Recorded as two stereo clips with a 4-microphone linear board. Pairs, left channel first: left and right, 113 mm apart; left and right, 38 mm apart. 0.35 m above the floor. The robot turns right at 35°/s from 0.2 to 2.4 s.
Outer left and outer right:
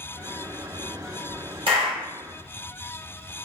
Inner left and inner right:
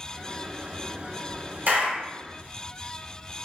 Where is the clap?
55° right (ahead or behind), 1.2 m; by 2.0 s 50° right (ahead or behind), 1.2 m.